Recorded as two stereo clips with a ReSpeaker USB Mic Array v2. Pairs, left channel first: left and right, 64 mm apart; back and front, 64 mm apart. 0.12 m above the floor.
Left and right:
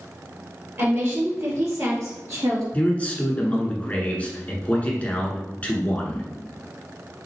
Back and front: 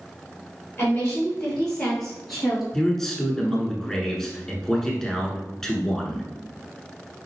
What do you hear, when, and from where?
0.8 s a woman speaking: 120° right, 2.5 m; by 2.6 s 90° right, 2.5 m
2.7 s a man speaking: 110° left, 1.1 m